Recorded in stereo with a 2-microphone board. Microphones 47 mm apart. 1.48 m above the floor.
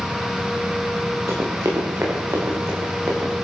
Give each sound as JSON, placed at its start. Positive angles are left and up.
{"t": 1.3, "sound": "running footsteps", "side_deg": -80, "distance_m": 8.5}